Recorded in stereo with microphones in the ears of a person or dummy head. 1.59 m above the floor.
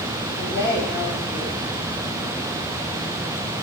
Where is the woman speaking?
20° right (ahead or behind), 5.5 m.